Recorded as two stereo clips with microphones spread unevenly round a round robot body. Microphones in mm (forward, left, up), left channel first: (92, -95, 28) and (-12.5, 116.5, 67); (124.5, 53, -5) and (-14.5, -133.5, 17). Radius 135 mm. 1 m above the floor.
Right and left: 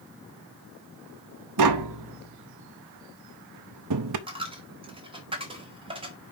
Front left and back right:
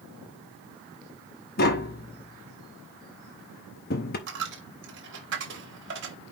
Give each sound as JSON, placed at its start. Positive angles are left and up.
{"t": 1.6, "sound": "tapping", "azimuth_deg": 115, "distance_m": 0.7}
{"t": 4.3, "sound": "a dropped coin", "azimuth_deg": -175, "distance_m": 1.0}